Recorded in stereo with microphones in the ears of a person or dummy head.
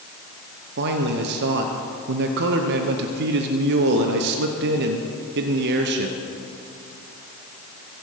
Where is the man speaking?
60° right (ahead or behind), 0.8 m.